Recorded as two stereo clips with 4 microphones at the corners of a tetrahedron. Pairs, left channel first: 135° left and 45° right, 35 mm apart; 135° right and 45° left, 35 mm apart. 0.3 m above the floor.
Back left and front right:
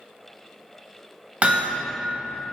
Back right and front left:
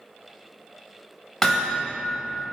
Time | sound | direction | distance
1.4 | hammering | 65° right | 1.0 m